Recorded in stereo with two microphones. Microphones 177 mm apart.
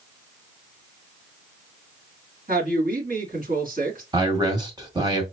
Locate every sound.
2.5 s a woman speaking: 55° right (ahead or behind), 2 m
4.1 s a man speaking: 25° right (ahead or behind), 1.5 m